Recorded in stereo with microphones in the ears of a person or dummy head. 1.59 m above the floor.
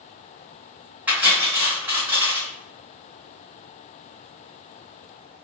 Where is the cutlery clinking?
5° right (ahead or behind), 0.7 m.